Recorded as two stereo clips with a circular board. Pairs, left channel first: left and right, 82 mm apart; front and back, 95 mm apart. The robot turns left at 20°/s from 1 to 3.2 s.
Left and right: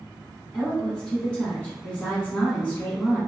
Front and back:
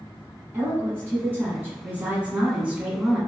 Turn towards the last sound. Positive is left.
turn(degrees=110)